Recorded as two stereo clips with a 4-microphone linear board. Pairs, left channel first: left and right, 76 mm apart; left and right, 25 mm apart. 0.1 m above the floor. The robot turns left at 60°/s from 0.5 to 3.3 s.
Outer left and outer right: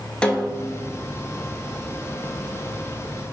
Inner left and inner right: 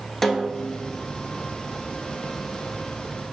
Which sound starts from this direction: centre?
A snare drum, at 0.2 s.